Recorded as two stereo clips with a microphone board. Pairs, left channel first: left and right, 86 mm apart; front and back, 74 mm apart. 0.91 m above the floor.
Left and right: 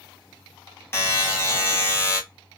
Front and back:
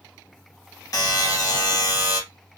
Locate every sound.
0.9 s a buzzer: 30° left, 1.0 m